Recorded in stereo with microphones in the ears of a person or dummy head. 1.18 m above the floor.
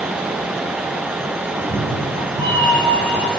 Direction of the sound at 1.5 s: 5° right (ahead or behind).